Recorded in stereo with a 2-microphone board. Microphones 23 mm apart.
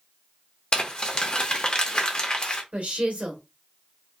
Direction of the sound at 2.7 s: 75° right (ahead or behind).